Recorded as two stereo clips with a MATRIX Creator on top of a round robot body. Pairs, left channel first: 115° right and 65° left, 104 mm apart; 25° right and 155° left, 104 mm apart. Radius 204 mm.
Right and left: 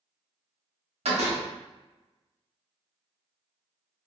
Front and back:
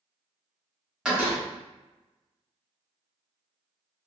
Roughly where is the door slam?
Left.